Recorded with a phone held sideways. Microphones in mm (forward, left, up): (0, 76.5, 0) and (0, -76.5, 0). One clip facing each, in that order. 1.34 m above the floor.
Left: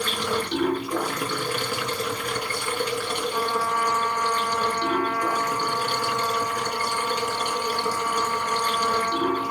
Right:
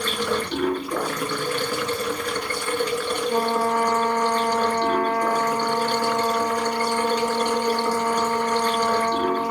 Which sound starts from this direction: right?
A trumpet, at 3.3 s.